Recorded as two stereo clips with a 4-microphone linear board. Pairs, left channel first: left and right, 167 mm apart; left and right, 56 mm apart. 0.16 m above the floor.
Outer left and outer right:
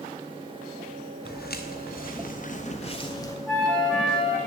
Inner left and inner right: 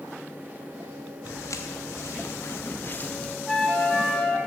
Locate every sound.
1.2 s footsteps: 80° left, 1.7 m; by 3.4 s 20° left (ahead or behind), 1.0 m
3.5 s a flute: 5° left (ahead or behind), 2.0 m